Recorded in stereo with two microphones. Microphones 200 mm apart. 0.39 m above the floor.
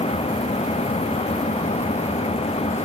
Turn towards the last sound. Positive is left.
turn(degrees=30)  # may be behind; listen again after turning